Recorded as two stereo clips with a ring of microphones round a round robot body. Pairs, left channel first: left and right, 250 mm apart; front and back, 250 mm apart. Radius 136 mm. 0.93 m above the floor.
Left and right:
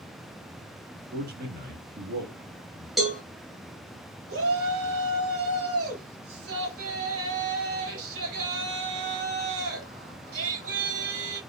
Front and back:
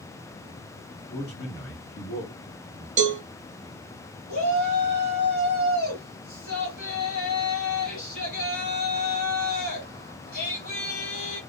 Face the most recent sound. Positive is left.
turn(degrees=-55)